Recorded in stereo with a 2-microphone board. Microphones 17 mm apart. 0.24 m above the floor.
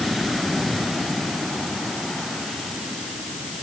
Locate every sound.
Only background noise.